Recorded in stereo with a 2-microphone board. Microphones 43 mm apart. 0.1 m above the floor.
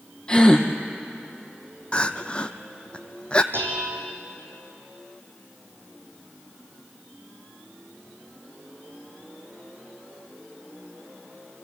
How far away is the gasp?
About 2 m.